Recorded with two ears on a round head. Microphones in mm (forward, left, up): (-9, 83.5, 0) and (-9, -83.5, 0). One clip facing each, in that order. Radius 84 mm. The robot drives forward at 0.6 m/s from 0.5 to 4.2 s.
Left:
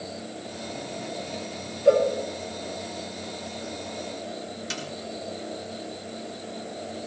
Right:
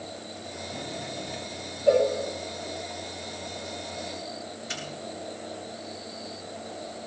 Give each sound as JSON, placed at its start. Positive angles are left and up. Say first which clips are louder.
{"t": 1.9, "sound": "a cowbell", "louder": "left 2 dB", "side_deg": 80, "distance_m": 6.0}
{"t": 4.7, "sound": "a snare drum", "louder": "left 2 dB", "side_deg": 60, "distance_m": 5.0}